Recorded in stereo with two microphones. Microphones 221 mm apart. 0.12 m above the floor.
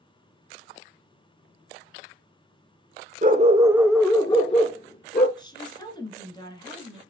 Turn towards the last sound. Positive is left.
turn(degrees=20)  # may be behind; listen again after turning